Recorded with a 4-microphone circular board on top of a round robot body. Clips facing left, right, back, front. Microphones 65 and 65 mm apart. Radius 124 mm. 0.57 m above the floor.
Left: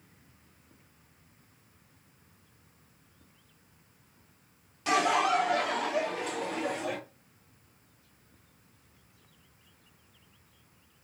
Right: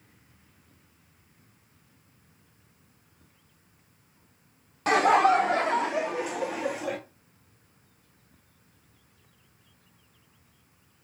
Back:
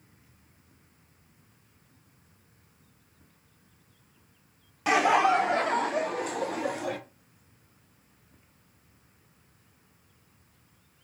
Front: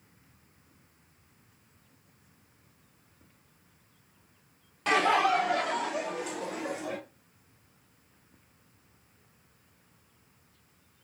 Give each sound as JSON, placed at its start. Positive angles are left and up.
{"t": 4.9, "sound": "laughter", "azimuth_deg": -100, "distance_m": 0.9}